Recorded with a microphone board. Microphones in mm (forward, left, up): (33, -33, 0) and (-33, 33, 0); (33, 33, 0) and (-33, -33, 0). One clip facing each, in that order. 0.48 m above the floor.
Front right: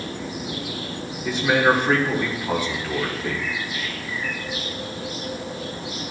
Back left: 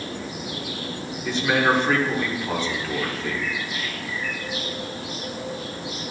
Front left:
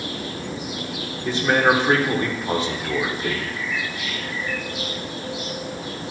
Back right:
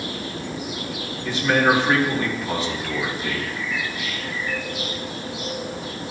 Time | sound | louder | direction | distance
1.2 | a man speaking | front right 2 dB, front left 1 dB | 30° left | 1.4 m